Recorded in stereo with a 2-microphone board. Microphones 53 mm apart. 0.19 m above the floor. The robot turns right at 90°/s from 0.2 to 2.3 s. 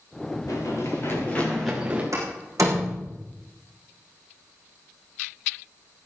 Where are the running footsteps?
85° left, 6 m; by 2.0 s 30° right (ahead or behind), 7 m.